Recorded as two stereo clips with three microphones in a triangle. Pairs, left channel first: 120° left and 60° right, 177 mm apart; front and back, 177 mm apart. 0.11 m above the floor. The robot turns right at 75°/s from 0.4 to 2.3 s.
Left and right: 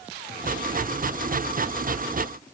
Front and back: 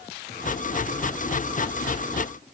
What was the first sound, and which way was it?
Only background noise.